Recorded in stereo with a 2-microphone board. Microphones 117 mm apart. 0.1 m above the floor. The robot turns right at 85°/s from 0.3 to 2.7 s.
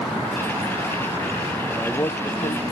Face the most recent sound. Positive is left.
turn(degrees=90)